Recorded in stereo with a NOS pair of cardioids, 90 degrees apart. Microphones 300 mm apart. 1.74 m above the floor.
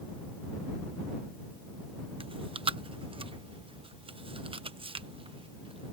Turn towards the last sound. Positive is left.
turn(degrees=-20)